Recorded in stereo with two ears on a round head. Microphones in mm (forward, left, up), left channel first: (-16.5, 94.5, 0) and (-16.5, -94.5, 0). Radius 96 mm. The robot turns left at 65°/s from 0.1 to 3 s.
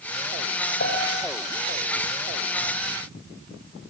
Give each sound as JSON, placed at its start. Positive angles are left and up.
{"t": 0.8, "sound": "a piano", "side_deg": 40, "distance_m": 8.0}